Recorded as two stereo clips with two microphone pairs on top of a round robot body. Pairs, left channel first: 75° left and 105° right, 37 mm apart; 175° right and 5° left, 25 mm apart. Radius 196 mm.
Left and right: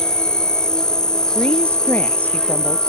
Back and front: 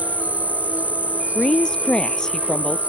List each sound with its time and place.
0.0 s an insect: 5° left
1.4 s a woman speaking: 125° left